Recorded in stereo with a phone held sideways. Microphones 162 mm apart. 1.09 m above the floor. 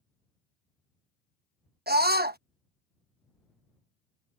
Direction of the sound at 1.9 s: 85° right.